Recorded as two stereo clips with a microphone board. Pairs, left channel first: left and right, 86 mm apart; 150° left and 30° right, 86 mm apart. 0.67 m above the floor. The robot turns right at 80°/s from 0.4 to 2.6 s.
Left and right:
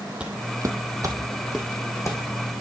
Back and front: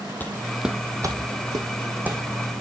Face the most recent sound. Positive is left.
turn(degrees=90)